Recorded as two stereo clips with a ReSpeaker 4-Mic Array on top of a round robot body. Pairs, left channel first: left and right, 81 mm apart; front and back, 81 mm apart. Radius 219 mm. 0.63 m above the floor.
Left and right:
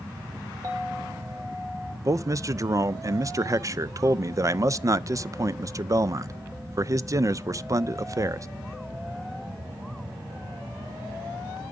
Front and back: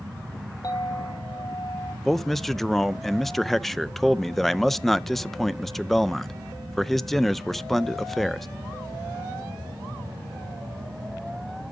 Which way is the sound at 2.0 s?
85° right.